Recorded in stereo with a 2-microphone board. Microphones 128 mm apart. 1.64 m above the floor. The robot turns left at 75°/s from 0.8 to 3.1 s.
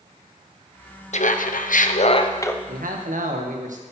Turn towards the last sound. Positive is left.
turn(degrees=-110)